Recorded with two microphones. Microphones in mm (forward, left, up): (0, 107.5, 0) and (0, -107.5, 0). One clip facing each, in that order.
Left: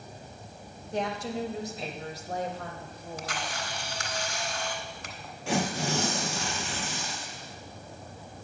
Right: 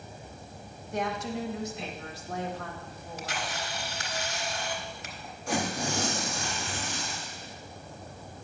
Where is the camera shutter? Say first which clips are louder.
Left 1 dB; 25° right (ahead or behind), 1.7 m.